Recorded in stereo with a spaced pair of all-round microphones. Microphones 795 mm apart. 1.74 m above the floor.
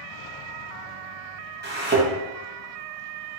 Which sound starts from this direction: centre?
A thud, at 1.6 s.